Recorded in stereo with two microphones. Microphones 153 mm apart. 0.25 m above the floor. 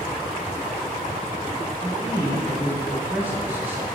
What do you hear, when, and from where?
1.8 s a man speaking: 15° right (ahead or behind), 1.3 m